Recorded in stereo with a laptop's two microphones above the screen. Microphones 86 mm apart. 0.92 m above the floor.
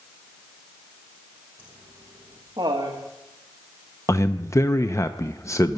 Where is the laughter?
20° right (ahead or behind), 1.2 m; by 3.0 s 65° right (ahead or behind), 1.6 m.